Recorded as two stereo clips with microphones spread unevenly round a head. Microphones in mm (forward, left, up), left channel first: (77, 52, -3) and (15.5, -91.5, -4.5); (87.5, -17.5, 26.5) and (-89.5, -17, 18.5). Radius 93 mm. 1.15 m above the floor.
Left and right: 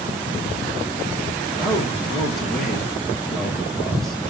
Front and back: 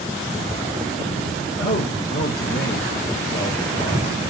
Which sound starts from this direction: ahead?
A man speaking, at 1.6 s.